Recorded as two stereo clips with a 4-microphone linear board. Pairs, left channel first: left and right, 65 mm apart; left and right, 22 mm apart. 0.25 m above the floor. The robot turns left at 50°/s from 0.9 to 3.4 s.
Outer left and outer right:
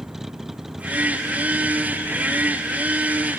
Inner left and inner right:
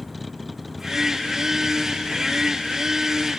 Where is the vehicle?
5° right (ahead or behind); by 3.4 s 50° right (ahead or behind).